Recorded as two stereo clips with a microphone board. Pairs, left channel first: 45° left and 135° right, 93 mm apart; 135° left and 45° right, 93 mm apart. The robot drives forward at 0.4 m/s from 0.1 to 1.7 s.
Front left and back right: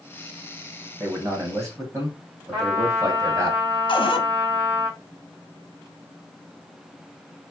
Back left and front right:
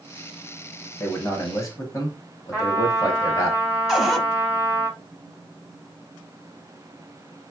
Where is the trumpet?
165° right, 2 m.